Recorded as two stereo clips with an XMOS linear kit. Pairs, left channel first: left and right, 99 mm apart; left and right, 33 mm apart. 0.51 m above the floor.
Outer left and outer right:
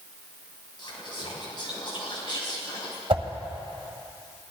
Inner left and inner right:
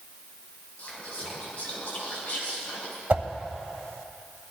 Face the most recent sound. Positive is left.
turn(degrees=-65)  # may be behind; listen again after turning